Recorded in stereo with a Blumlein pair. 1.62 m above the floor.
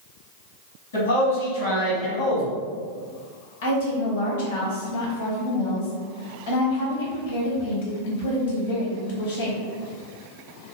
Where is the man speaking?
65° left, 1.4 m; by 2.6 s 25° left, 0.8 m.